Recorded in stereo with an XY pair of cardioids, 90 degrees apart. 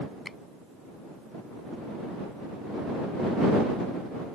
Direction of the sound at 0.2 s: 20° left.